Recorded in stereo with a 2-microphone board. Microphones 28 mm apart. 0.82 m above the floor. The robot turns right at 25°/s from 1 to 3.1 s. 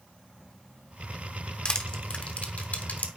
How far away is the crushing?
About 1.2 m.